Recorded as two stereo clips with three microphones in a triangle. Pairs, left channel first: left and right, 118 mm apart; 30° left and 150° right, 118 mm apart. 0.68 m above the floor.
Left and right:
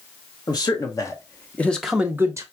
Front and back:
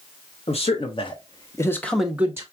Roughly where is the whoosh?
I don't hear a whoosh.